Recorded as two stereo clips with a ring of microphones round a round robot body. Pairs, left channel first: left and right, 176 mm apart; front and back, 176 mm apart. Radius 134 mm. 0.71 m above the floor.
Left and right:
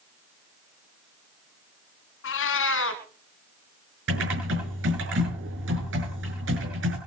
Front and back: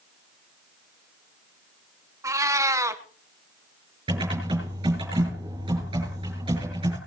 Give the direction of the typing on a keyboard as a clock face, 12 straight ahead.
4 o'clock.